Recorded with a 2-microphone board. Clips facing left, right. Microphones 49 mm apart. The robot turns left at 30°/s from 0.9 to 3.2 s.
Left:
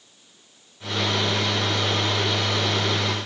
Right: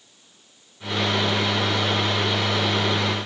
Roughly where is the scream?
I don't hear a scream.